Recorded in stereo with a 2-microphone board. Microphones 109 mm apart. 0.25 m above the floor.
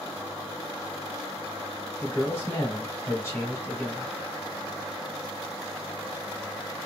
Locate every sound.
2.0 s a man speaking: 25° left (ahead or behind), 1.4 m